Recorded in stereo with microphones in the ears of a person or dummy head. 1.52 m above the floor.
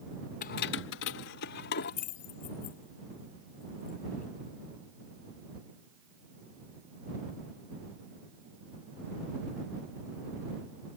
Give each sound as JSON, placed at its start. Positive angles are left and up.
{"t": 0.4, "sound": "keys jangling", "side_deg": 50}